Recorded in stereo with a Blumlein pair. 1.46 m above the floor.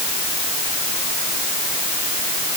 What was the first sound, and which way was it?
Only background noise.